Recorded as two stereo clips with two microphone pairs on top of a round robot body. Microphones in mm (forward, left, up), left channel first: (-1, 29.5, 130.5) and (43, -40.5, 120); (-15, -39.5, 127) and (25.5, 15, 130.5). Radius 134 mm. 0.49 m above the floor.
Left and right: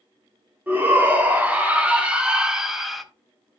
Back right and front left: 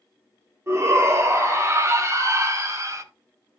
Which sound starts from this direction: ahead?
A shout, at 0.7 s.